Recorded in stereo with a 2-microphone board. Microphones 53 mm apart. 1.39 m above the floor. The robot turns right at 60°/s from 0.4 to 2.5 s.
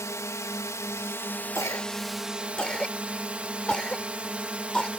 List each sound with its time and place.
0.0 s a drone: 80° left; by 5.0 s 155° right
1.6 s a cough: 70° left (ahead or behind); by 4.9 s 15° left (ahead or behind)